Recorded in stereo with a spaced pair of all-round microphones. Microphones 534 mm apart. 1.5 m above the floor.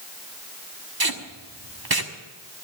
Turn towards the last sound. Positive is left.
turn(degrees=-40)  # may be behind; listen again after turning